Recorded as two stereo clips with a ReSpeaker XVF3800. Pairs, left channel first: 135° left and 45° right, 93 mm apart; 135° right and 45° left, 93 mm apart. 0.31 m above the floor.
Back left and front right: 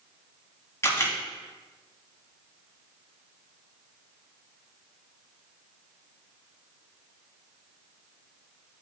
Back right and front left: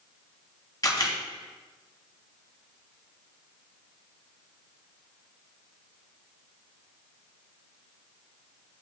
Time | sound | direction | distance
0.8 | a camera shutter | 170° right | 3 m